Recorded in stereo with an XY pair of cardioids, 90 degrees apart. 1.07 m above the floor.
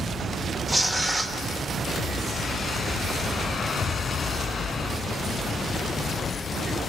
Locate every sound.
0.7 s tearing paper: 20° right, 2.5 m